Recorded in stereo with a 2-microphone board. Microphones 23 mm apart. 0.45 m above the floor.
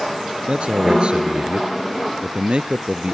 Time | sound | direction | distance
0.5 | a man speaking | 40° right (ahead or behind) | ?